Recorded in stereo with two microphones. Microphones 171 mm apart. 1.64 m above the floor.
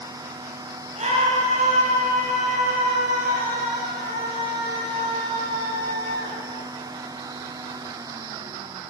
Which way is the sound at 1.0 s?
40° right (ahead or behind).